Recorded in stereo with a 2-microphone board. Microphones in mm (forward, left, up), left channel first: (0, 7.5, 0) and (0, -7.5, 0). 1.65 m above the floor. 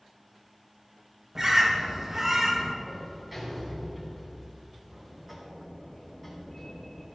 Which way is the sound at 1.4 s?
25° right (ahead or behind).